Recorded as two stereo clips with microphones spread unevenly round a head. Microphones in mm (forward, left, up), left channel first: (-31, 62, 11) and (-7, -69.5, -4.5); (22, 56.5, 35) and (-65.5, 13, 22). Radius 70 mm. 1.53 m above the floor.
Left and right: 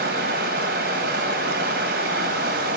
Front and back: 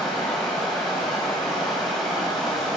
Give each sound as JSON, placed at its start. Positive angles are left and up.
{"t": 0.0, "sound": "running water", "azimuth_deg": -60, "distance_m": 3.0}